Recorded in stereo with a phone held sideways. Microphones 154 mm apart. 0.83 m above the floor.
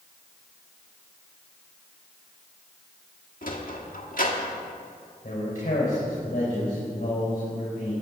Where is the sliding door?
65° left (ahead or behind), 1.6 m.